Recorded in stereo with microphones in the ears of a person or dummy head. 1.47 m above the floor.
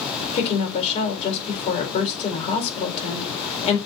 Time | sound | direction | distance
0.3 | a woman speaking | 30° left (ahead or behind) | 4 m